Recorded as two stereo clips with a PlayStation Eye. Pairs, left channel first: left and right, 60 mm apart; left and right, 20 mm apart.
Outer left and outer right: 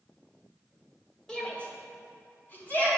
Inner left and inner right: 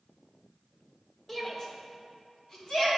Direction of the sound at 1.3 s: 10° left (ahead or behind).